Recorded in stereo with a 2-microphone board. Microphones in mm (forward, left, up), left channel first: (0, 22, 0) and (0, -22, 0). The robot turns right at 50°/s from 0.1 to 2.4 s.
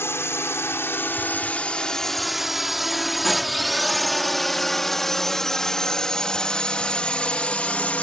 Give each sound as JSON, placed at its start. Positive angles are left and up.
{"t": 0.0, "sound": "a drone", "side_deg": 75}